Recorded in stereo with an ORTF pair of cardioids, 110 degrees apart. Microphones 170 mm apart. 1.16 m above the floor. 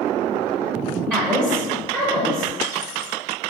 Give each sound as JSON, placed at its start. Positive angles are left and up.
{"t": 1.1, "sound": "a woman speaking", "azimuth_deg": -15, "distance_m": 1.0}